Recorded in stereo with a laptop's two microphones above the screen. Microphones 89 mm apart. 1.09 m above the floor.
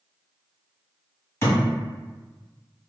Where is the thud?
30° left (ahead or behind), 1.1 m.